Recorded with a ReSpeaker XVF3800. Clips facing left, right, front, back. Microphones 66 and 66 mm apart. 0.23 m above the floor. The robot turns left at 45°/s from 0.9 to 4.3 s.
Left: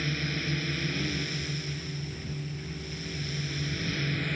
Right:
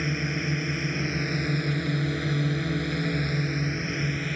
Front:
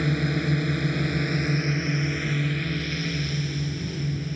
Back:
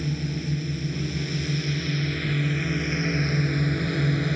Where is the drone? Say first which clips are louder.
Right 4 dB, front 5 dB; 20° right; by 4.4 s 175° right.